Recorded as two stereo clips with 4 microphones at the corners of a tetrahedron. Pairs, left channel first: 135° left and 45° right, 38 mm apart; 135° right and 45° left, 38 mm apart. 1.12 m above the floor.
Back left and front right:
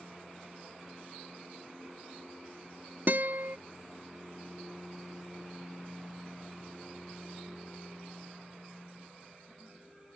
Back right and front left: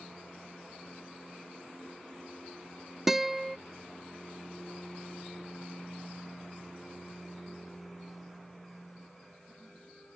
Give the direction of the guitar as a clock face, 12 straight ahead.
1 o'clock.